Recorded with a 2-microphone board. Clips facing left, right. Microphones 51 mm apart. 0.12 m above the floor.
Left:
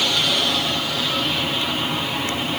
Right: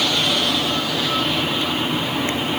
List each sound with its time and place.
Only background noise.